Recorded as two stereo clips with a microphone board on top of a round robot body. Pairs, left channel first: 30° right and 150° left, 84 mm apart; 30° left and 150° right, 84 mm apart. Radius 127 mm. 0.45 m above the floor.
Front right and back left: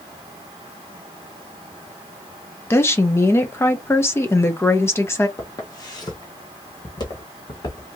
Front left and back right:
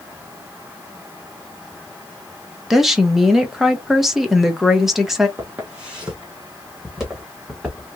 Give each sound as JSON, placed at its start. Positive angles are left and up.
{"t": 2.7, "sound": "a woman speaking", "azimuth_deg": -65, "distance_m": 1.1}
{"t": 5.4, "sound": "footsteps", "azimuth_deg": -80, "distance_m": 0.9}